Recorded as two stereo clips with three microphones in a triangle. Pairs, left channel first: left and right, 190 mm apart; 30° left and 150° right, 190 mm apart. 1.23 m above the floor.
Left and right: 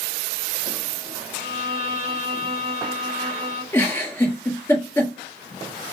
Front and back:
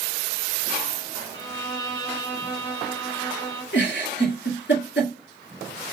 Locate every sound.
1.3 s a violin: 35° right, 3.5 m
3.7 s a giggle: 10° left, 3 m